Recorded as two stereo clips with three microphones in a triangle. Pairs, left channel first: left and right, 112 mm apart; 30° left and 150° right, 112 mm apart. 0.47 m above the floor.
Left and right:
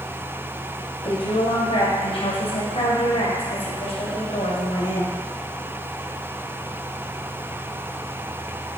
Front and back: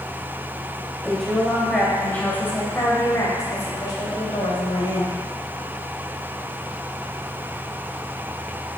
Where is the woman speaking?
120° left, 2.5 m; by 5.2 s 65° left, 3.5 m.